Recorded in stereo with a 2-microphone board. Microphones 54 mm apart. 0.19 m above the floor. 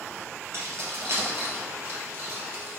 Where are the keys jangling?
55° right (ahead or behind), 2.5 m; by 2.8 s 40° right (ahead or behind), 3.5 m.